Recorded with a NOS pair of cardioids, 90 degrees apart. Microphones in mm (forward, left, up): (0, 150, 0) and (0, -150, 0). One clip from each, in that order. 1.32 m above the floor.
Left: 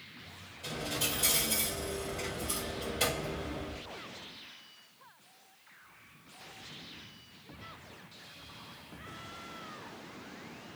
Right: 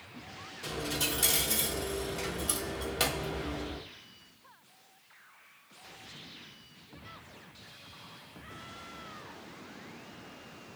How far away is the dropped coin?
About 1.9 m.